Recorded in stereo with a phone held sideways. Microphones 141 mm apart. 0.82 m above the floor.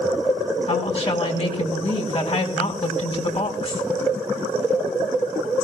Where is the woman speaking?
50° left (ahead or behind), 5.5 m.